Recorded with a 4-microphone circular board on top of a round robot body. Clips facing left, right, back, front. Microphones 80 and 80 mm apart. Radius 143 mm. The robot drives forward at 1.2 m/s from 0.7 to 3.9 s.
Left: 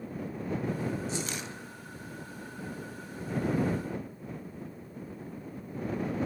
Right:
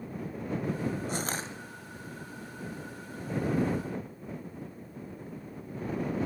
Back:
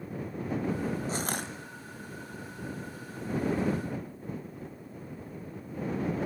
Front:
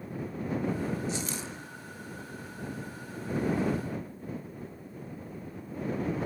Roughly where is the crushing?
Behind right.